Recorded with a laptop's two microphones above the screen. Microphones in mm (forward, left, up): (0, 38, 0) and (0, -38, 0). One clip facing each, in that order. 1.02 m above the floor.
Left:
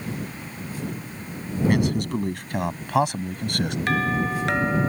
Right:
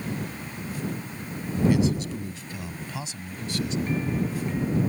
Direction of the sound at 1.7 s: 60° left (ahead or behind).